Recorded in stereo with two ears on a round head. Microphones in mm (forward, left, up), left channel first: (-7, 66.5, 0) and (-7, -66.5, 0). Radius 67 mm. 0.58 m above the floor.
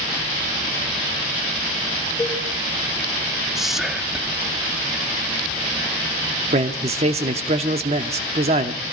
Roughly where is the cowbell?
Centre.